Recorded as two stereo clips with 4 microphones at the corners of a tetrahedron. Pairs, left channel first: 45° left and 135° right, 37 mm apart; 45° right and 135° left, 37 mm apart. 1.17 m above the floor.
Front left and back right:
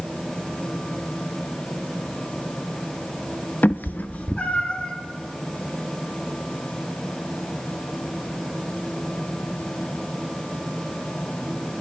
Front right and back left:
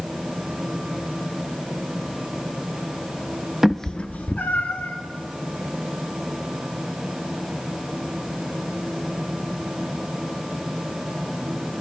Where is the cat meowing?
55° left, 0.6 m; by 4.9 s 15° right, 2 m.